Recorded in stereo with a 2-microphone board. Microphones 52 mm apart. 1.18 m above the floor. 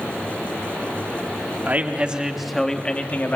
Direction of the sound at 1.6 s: 35° right (ahead or behind).